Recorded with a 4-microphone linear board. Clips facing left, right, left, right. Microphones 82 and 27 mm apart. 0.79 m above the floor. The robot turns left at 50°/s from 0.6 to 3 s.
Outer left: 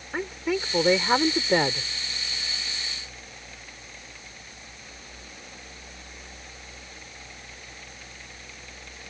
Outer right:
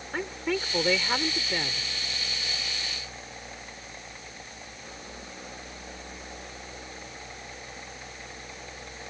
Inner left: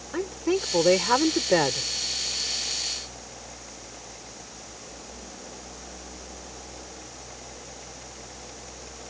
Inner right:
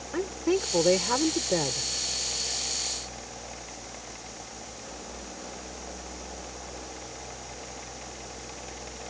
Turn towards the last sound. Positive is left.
turn(degrees=50)